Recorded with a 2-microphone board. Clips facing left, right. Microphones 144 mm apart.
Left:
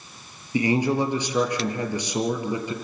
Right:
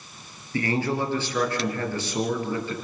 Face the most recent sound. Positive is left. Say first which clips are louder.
# left 4 dB
turn(degrees=15)  # may be behind; listen again after turning